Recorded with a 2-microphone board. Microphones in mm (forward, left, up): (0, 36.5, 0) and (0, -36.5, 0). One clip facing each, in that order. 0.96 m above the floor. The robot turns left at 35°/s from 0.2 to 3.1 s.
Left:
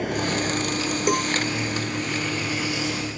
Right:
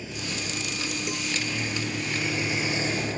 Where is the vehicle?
60° left; by 3.2 s 40° right.